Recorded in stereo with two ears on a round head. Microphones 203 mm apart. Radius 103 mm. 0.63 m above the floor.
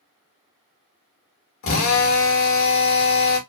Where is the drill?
65° left (ahead or behind), 2.0 m.